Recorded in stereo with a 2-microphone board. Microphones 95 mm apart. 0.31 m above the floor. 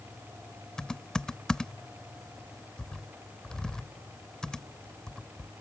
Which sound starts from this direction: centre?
Typing on a keyboard, at 0.8 s.